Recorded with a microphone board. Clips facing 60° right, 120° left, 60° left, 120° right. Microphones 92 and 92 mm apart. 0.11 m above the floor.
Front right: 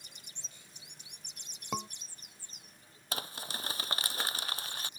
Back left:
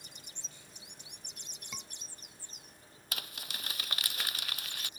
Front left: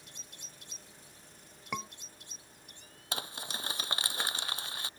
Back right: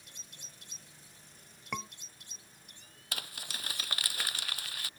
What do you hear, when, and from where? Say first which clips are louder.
1.7 s a scream: front right 14 dB, front left 1 dB; 25° right
3.1 s crumpling: front right 5 dB, front left 4 dB; 5° right